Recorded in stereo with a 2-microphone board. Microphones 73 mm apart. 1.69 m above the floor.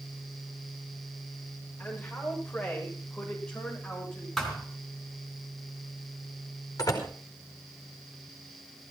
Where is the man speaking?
20° left (ahead or behind), 9 m; by 4.3 s 10° left (ahead or behind), 10 m.